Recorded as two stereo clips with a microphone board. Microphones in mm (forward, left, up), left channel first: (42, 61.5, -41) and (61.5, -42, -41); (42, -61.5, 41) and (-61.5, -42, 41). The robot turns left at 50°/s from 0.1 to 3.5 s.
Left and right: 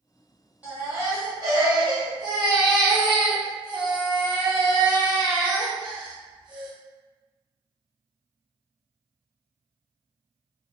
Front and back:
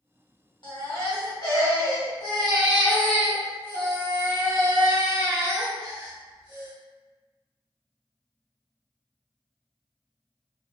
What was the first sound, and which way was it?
A baby crying, 10° right.